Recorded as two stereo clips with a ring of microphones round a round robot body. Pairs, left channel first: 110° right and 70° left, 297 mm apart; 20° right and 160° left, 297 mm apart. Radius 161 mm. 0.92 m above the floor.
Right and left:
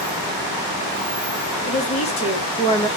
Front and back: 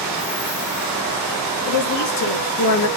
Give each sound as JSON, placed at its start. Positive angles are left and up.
{"t": 1.6, "sound": "a woman speaking", "azimuth_deg": -45, "distance_m": 1.8}